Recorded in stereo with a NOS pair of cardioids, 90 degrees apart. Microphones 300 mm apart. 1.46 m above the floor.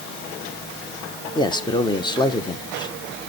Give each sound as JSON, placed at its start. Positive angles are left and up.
{"t": 1.4, "sound": "a man speaking", "azimuth_deg": 15, "distance_m": 1.2}